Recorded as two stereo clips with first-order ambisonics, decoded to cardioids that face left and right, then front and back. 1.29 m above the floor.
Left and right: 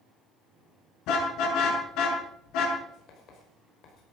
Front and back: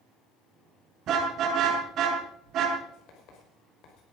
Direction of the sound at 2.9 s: 40° left.